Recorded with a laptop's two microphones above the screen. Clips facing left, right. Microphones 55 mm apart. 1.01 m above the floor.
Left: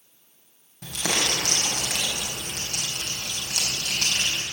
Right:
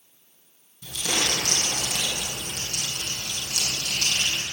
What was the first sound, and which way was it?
Crumpling, 70° left (ahead or behind).